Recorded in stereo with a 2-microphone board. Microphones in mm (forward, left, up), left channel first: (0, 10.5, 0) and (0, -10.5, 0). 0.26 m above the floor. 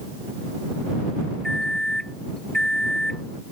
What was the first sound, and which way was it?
A microwave, 25° left (ahead or behind).